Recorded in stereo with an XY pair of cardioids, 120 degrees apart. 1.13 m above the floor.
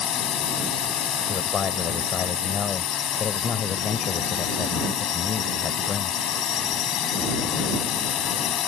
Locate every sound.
0.0 s a drone: 60° left
1.3 s a man speaking: 45° left